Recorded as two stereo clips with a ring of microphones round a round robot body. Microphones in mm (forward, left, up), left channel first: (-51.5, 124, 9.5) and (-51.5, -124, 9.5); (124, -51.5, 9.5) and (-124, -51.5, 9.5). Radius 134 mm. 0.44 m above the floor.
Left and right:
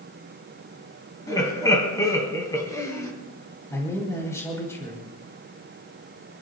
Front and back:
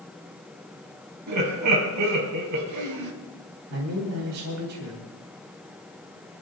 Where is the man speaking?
170° left, 3.5 m.